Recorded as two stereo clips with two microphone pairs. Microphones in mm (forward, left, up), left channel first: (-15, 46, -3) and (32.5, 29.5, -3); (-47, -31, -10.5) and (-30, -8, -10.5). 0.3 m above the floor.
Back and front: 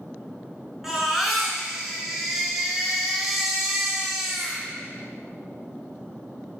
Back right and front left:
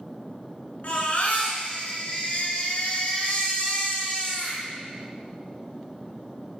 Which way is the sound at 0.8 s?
100° right.